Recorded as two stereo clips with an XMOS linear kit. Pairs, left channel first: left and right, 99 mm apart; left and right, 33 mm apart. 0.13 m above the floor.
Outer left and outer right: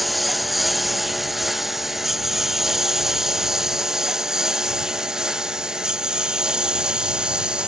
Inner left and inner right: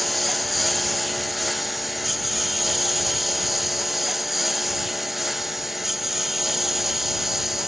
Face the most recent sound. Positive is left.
turn(degrees=-10)  # may be behind; listen again after turning